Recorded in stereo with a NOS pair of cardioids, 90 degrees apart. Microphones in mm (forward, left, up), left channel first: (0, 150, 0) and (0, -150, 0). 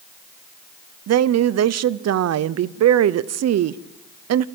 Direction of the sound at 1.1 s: 60° right.